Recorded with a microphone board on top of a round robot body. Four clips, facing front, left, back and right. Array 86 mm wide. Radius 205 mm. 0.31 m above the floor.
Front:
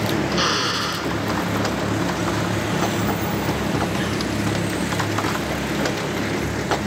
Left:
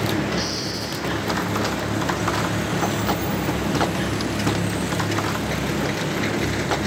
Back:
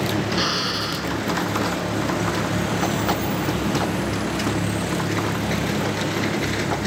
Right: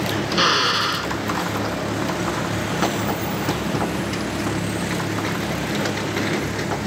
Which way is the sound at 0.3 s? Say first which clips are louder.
Right 7 dB, front 2 dB; 80° right.